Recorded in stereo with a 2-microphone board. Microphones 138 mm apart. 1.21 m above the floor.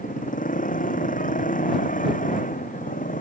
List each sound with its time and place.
0.0 s a motorcycle: 75° left (ahead or behind)